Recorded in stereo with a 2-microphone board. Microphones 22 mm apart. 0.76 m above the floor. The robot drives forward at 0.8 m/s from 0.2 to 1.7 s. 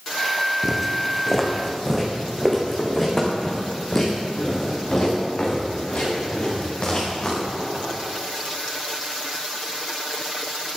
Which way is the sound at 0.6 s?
5° right (ahead or behind).